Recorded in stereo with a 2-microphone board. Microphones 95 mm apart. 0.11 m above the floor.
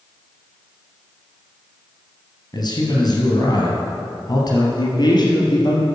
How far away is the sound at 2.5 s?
About 2.5 m.